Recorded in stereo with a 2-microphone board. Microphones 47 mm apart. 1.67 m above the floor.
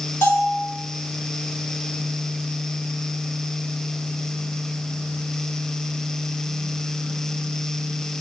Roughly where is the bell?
Left.